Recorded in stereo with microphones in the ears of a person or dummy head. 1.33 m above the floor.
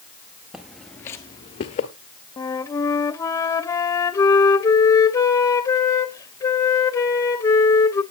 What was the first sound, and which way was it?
Footsteps, 5° right (ahead or behind).